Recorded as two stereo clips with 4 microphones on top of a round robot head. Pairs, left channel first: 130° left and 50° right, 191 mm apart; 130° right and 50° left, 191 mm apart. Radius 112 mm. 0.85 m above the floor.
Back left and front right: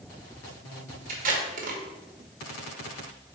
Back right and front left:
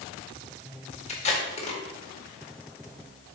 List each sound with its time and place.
1.1 s tape being pulled: 85° right, 1.9 m